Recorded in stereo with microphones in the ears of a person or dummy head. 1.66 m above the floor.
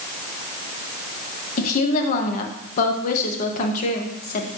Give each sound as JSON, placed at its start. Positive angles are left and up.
{"t": 1.6, "sound": "a woman speaking", "side_deg": 45, "distance_m": 1.1}